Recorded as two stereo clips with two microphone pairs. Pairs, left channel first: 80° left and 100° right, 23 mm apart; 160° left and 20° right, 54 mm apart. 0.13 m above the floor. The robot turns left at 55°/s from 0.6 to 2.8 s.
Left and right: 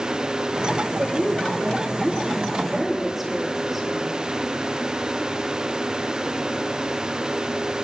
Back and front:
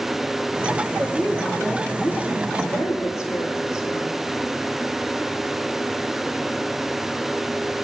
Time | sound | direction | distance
1.0 | a woman speaking | 80° right | 4.5 m